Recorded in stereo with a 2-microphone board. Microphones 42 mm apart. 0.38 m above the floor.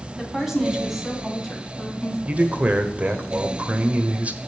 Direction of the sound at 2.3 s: 35° right (ahead or behind).